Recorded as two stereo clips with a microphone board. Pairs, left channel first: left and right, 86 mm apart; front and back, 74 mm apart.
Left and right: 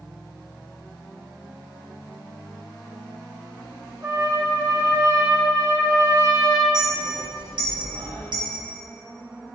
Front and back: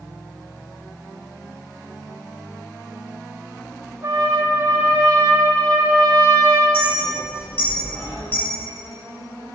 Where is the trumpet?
130° right, 1.7 m.